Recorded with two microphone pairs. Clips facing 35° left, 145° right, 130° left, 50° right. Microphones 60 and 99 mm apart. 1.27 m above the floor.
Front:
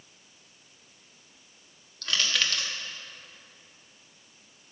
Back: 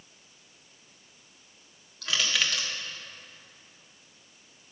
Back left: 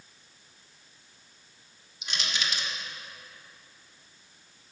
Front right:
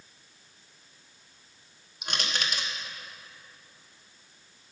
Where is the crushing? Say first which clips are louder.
Even, front right 2 dB; 65° right, 1.0 m.